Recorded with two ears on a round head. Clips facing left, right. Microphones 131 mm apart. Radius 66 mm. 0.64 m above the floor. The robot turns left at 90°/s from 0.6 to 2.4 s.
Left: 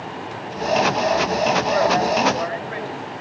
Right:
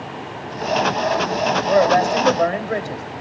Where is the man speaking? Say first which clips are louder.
Right 3 dB; 55° right, 3 m; by 3.0 s 120° right, 3 m.